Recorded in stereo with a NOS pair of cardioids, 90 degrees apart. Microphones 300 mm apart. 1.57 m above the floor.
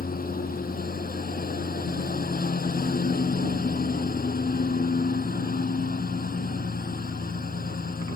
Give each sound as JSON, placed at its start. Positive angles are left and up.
{"t": 0.0, "sound": "a lawn mower", "azimuth_deg": 30}